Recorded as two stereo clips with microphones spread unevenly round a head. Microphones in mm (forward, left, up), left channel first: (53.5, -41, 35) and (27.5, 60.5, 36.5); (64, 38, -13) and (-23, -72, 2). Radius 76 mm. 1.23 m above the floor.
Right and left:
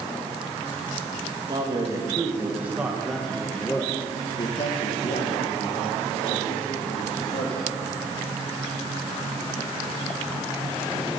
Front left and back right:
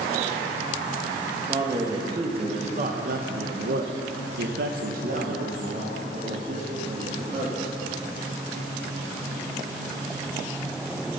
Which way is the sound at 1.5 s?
160° left.